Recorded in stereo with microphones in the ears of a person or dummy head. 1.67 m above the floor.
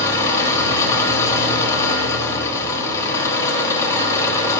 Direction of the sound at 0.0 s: 15° left (ahead or behind).